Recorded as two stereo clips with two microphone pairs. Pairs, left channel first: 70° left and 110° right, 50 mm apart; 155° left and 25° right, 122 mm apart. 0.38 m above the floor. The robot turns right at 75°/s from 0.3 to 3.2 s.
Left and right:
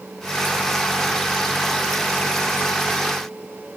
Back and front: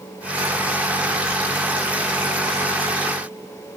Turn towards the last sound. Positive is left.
No sound to turn to.